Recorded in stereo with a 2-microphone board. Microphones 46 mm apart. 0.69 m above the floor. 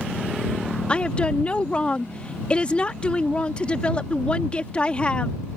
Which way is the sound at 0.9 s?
25° left (ahead or behind).